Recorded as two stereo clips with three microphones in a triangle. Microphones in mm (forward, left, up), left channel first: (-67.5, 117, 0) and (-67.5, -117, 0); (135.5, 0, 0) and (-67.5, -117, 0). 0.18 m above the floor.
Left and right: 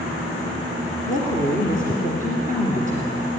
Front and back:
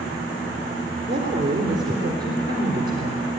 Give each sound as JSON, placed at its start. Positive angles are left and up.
{"t": 1.1, "sound": "a woman speaking", "azimuth_deg": 140, "distance_m": 3.0}